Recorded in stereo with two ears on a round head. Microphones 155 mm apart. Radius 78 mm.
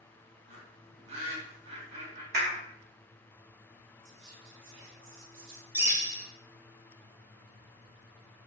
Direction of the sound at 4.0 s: 75° right (ahead or behind).